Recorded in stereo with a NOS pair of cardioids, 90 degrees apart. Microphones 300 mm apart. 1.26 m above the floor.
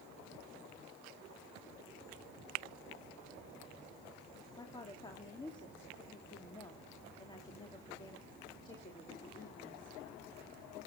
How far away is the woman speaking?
About 3 m.